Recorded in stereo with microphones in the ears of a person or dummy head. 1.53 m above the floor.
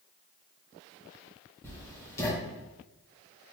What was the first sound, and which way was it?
Writing, 15° left (ahead or behind).